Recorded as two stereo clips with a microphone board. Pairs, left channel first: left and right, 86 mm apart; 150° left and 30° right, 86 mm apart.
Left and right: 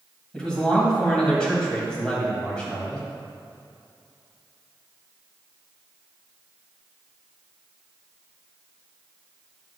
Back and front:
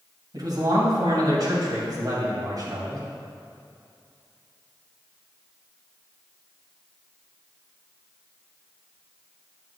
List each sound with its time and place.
0.3 s a man speaking: 10° left, 2.5 m